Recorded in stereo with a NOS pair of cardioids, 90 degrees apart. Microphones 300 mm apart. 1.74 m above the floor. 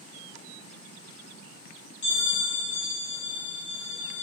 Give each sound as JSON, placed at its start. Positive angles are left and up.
{"t": 2.0, "sound": "a bell", "azimuth_deg": 65, "distance_m": 1.7}